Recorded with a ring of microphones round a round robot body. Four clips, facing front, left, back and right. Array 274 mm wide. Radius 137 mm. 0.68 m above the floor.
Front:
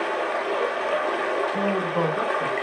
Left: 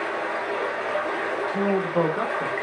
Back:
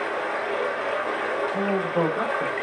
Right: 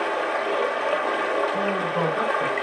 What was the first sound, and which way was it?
Running water, 60° right.